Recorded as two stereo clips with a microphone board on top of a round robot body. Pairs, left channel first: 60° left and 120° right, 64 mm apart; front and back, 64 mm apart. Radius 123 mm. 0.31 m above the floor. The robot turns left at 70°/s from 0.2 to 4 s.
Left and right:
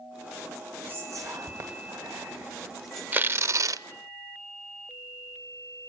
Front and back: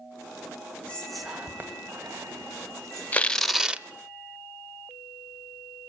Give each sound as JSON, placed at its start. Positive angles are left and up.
{"t": 0.9, "sound": "whispering", "azimuth_deg": -70, "distance_m": 1.9}
{"t": 3.1, "sound": "tearing paper", "azimuth_deg": -65, "distance_m": 0.9}